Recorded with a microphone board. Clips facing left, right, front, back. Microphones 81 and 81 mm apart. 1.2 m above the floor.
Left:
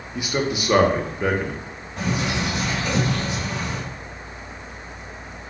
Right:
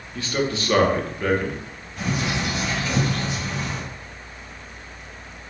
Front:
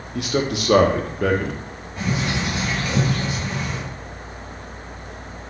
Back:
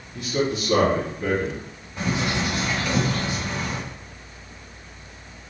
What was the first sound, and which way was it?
A man speaking, 15° left.